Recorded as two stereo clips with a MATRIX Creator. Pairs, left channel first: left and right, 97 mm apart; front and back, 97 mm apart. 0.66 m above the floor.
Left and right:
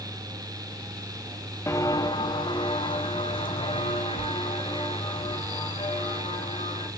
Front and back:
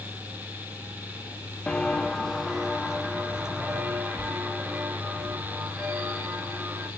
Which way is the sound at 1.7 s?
75° left.